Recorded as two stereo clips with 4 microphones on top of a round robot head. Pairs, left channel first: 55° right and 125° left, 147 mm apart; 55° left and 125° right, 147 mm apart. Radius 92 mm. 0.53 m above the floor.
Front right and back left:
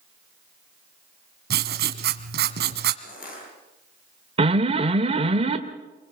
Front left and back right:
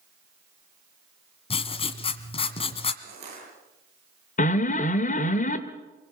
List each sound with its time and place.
1.5 s writing: 105° left, 1.4 m
3.0 s crushing: 80° right, 9 m
4.4 s an alarm: 80° left, 1.7 m